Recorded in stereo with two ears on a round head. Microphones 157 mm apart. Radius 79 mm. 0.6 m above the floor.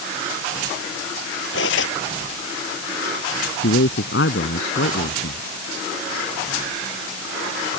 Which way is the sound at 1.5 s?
75° left (ahead or behind).